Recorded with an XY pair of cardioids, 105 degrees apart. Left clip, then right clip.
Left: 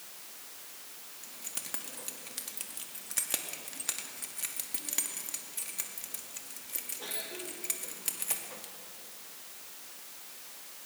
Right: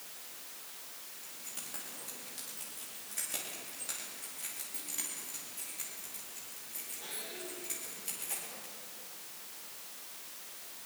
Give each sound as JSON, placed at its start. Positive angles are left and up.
{"t": 1.2, "sound": "keys jangling", "azimuth_deg": 60, "distance_m": 2.0}